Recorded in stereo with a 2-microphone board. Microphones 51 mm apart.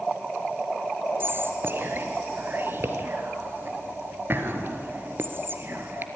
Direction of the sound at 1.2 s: 45° right (ahead or behind).